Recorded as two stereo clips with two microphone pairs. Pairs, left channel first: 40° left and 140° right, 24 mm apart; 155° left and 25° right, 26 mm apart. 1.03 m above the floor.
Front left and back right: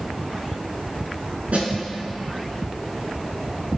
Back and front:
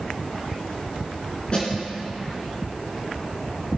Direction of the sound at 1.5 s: 155° right.